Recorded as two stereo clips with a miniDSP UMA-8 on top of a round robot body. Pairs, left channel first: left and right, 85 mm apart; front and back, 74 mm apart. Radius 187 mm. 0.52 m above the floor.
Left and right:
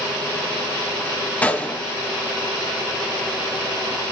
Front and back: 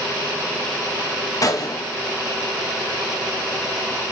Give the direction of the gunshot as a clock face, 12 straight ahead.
11 o'clock.